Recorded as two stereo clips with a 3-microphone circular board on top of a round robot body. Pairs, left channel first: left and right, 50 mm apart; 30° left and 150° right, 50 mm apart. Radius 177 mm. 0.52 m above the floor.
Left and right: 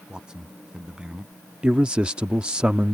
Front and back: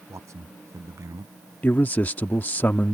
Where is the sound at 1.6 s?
20° right.